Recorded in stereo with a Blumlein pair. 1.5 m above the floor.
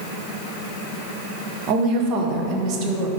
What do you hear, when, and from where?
1.7 s a woman speaking: 40° right, 1.0 m